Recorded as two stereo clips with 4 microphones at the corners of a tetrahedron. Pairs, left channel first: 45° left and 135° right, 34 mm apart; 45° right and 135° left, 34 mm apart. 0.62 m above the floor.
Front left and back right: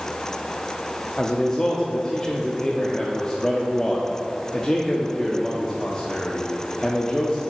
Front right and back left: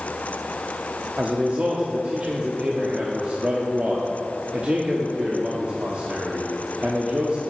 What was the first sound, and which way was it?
A man speaking, 110° left.